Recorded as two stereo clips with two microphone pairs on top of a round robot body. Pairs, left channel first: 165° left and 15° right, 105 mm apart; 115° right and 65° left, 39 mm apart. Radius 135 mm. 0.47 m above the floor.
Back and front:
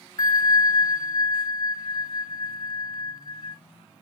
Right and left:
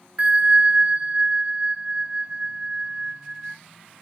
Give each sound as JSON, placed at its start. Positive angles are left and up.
{"t": 0.2, "sound": "a bell", "azimuth_deg": 110, "distance_m": 0.6}